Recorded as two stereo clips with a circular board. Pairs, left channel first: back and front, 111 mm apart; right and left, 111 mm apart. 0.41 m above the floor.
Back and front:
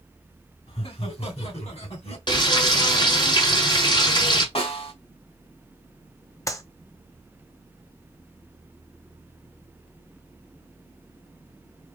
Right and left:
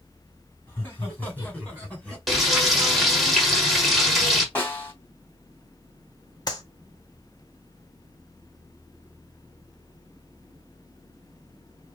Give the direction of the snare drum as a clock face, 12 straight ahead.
5 o'clock.